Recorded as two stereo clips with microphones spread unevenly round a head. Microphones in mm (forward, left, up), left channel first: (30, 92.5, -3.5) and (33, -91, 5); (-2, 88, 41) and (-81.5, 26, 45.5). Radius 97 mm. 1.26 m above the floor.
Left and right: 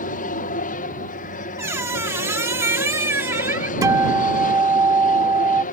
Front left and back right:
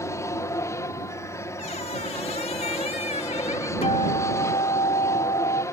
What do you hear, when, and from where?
0.0 s an aircraft: 80° left
1.6 s a squeak: 15° right
3.8 s a guitar: 20° right